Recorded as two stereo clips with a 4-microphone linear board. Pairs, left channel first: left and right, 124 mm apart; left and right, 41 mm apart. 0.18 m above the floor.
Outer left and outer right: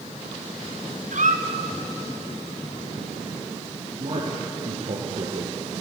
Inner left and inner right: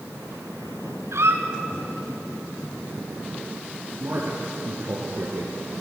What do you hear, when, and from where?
1.1 s a squeak: 85° right, 2.5 m
4.0 s a man speaking: 70° right (ahead or behind), 3.5 m